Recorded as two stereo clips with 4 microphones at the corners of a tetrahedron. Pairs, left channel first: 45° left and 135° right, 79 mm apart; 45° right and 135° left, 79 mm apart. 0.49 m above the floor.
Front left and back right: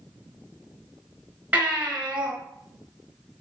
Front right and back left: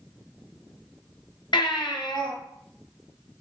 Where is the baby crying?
65° right, 4 m.